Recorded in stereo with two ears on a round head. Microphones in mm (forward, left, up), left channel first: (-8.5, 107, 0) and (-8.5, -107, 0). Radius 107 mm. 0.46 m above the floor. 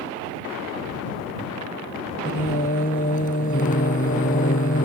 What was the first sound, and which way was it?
Singing, 35° left (ahead or behind).